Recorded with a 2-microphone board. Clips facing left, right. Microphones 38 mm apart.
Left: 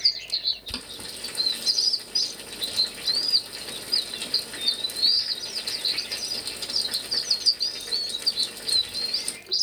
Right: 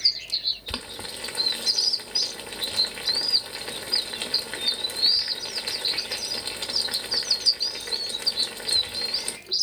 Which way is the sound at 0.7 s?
35° right (ahead or behind).